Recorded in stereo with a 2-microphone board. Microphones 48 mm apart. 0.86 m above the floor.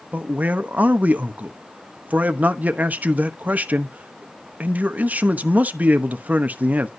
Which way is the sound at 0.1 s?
35° right (ahead or behind).